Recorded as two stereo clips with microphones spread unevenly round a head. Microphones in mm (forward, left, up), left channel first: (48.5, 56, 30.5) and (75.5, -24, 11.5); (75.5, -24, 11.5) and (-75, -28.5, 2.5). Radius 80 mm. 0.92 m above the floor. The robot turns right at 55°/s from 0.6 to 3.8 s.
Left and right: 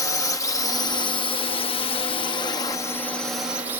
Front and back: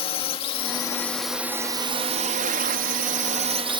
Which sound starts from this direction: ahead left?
A drone, at 0.0 s.